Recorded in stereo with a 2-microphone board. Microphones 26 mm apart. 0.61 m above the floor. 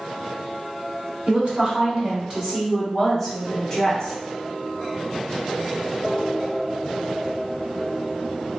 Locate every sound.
1.3 s a woman speaking: 45° right (ahead or behind), 1.6 m; by 4.1 s 20° left (ahead or behind), 1.2 m